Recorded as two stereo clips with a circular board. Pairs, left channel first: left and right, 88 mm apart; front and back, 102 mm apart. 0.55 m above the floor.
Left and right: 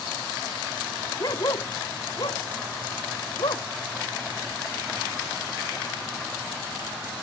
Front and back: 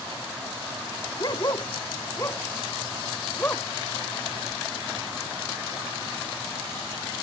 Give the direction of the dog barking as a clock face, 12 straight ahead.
10 o'clock.